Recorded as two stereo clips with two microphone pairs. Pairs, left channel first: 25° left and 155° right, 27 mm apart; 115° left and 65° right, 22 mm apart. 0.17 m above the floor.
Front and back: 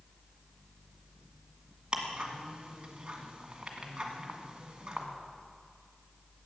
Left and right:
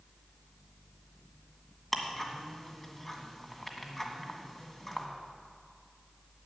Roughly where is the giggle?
I don't hear a giggle.